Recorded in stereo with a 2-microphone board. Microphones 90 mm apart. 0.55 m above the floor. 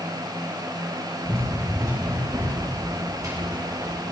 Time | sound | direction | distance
1.2 | running footsteps | 30° right (ahead or behind) | 10 m